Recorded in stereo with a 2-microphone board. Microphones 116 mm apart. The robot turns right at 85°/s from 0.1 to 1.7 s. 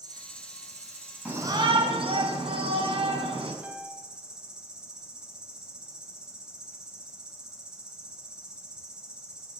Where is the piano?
10° right (ahead or behind), 1.3 m.